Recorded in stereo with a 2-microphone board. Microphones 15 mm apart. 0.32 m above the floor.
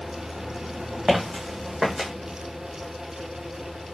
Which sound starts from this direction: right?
Footsteps, at 1.1 s.